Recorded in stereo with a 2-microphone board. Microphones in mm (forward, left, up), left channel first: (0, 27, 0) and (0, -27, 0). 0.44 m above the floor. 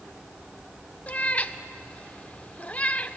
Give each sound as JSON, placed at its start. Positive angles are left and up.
{"t": 1.1, "sound": "a cat meowing", "side_deg": 25, "distance_m": 0.5}